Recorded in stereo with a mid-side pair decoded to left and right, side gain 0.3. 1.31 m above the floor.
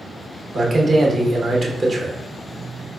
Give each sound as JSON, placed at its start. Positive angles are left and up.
{"t": 0.5, "sound": "a man speaking", "azimuth_deg": -50, "distance_m": 1.2}